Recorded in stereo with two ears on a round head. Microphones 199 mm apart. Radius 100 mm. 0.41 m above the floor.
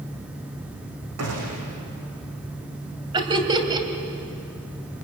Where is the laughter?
20° right (ahead or behind), 2.5 m.